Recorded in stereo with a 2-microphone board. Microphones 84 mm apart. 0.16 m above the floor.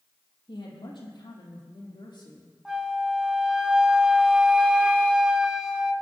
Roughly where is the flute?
Centre.